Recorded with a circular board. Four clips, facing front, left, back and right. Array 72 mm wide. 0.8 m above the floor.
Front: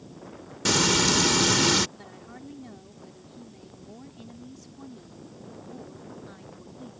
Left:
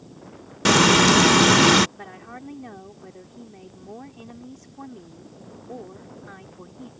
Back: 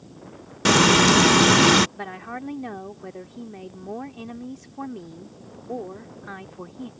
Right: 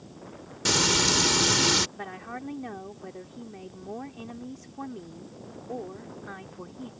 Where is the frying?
130° left.